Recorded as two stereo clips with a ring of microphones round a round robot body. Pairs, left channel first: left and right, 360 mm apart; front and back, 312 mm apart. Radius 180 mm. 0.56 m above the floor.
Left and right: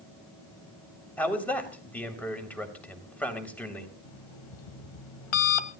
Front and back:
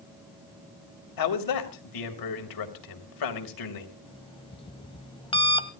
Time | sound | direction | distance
1.2 | a man speaking | 5° left | 3 m
4.0 | an alarm clock | 75° left | 1.4 m